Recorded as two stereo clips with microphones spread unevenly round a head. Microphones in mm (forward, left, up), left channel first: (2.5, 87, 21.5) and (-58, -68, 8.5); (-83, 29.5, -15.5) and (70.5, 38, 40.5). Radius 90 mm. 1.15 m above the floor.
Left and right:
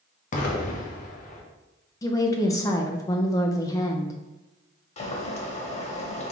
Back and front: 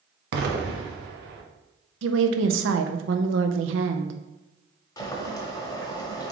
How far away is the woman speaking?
About 0.5 m.